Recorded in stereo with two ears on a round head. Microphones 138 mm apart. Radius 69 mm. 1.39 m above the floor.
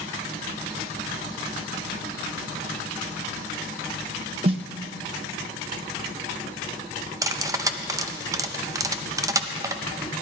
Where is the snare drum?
40° right (ahead or behind), 0.7 m.